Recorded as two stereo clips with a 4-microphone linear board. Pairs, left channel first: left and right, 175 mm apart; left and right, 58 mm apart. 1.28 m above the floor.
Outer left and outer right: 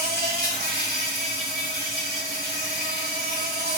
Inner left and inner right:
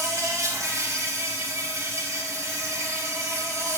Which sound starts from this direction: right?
An insect, at 0.0 s.